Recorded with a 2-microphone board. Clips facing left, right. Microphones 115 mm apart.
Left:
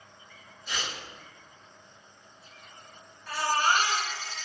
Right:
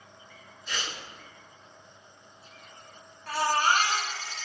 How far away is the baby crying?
About 0.9 m.